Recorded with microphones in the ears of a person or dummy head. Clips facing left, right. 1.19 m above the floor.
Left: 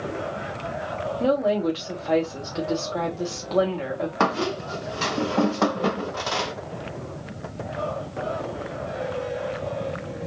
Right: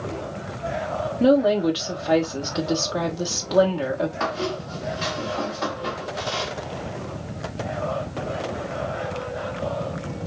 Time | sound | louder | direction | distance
1.2 | a woman speaking | right 4 dB | 15° right (ahead or behind) | 1.3 m
4.2 | a squeak | left 2 dB | 70° left (ahead or behind) | 0.9 m